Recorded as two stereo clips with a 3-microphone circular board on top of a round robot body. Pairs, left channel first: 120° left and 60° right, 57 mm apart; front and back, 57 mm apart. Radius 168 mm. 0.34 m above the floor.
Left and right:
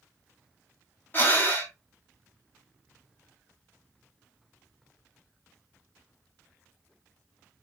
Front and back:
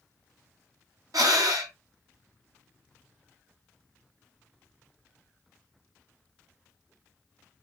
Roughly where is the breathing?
Behind.